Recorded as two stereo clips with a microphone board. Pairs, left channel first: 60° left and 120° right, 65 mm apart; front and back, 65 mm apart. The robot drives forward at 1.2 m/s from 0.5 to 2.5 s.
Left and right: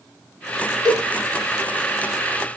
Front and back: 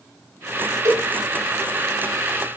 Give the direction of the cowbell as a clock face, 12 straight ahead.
5 o'clock.